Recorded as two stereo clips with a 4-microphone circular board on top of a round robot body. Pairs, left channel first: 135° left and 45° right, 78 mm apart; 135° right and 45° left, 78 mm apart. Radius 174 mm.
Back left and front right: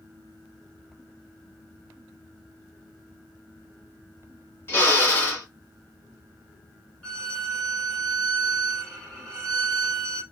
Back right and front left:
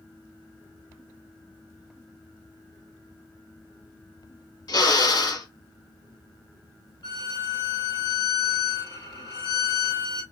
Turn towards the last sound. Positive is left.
turn(degrees=-145)